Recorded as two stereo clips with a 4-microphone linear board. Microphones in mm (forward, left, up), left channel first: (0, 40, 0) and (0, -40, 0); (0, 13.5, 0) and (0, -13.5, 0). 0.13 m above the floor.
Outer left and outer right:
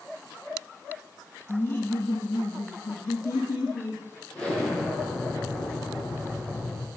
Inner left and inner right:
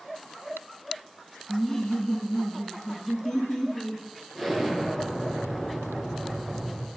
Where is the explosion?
15° left (ahead or behind), 2.5 m.